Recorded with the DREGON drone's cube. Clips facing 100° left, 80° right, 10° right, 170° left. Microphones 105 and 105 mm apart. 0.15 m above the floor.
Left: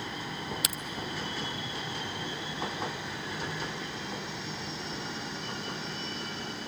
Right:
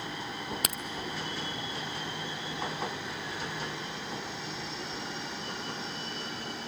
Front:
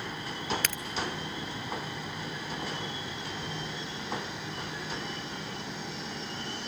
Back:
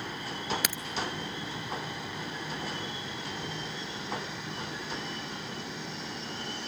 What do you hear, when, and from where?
0.6 s a crack: 110° right, 0.8 m